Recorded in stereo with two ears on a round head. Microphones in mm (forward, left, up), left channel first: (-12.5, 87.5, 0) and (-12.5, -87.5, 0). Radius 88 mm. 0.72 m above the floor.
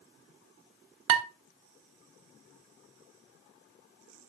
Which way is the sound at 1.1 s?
75° right (ahead or behind).